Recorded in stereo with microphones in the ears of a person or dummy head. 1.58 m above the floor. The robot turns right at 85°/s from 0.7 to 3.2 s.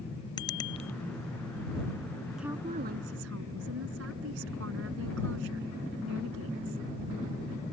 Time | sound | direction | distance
0.4 | a bicycle bell | 25° left (ahead or behind) | ?
2.4 | a woman speaking | 175° right | ?